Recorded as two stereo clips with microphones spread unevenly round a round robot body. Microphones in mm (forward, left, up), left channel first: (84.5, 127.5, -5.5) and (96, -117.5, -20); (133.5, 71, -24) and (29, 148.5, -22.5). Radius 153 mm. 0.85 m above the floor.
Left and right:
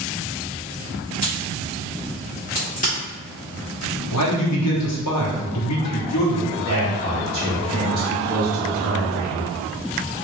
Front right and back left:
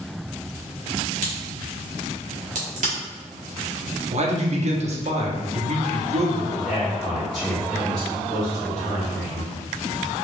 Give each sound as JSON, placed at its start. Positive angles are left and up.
{"t": 1.2, "sound": "a crack", "azimuth_deg": 160, "distance_m": 1.2}
{"t": 4.1, "sound": "a man speaking", "azimuth_deg": 120, "distance_m": 0.9}
{"t": 6.7, "sound": "a man speaking", "azimuth_deg": -120, "distance_m": 0.7}